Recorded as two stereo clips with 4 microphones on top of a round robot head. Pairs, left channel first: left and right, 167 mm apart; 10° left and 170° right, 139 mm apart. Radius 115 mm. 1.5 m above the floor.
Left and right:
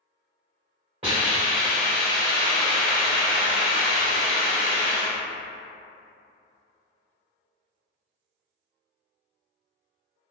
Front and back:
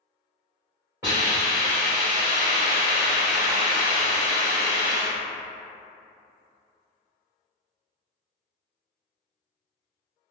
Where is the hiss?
110° right, 1.3 m.